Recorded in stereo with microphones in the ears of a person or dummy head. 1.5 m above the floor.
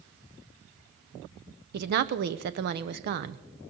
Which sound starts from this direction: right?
A woman speaking, at 1.7 s.